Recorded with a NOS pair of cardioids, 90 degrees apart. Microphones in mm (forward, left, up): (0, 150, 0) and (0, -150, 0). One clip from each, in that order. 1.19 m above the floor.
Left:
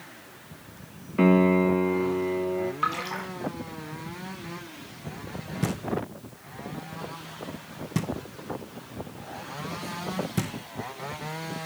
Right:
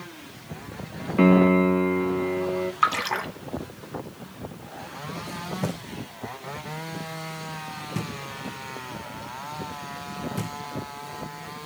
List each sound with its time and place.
1.2 s a piano: 15° right, 0.6 m
2.8 s a splash: 50° right, 1.2 m
5.6 s knocking: 30° left, 1.0 m